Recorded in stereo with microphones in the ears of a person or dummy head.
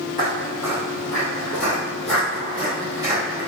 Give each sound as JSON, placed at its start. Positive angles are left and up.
{"t": 0.2, "sound": "footsteps", "side_deg": 30, "distance_m": 1.5}